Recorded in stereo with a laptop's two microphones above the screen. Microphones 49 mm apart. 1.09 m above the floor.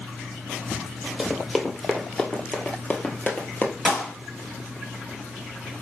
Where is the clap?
15° left (ahead or behind), 2 m.